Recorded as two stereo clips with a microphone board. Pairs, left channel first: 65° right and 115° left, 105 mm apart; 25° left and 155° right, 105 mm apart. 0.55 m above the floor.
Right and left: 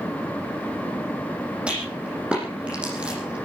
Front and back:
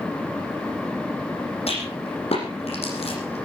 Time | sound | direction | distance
1.7 | a rattle | 35° left | 9 m